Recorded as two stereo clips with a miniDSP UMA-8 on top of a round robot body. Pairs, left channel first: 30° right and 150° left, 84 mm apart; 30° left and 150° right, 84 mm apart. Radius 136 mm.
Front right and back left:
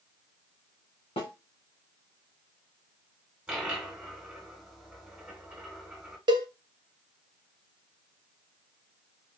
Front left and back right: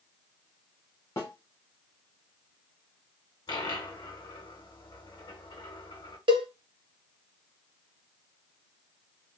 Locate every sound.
1.2 s a snare drum: 30° right, 1.0 m
3.5 s a dropped coin: 70° left, 1.1 m
6.3 s a cowbell: 175° right, 0.7 m